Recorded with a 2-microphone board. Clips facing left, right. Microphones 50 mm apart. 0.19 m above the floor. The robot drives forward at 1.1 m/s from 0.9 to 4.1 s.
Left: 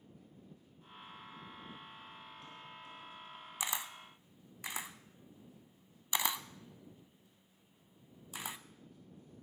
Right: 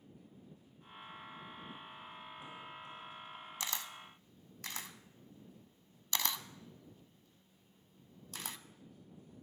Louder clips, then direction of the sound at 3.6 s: Left 3 dB; 15° left (ahead or behind).